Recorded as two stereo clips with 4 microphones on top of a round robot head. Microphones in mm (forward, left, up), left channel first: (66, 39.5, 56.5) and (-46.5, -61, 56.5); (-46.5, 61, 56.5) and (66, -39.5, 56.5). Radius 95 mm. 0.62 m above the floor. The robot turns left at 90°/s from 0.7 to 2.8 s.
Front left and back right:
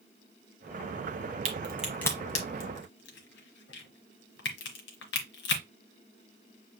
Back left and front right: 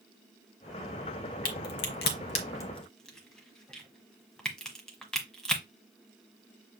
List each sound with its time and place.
1.4 s a crack: 175° left, 1.2 m; by 5.6 s 50° left, 1.2 m